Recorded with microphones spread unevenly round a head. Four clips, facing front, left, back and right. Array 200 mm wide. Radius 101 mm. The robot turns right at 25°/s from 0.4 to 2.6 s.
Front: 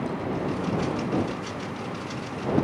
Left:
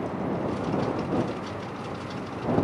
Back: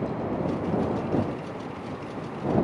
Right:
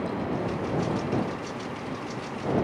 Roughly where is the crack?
I don't hear a crack.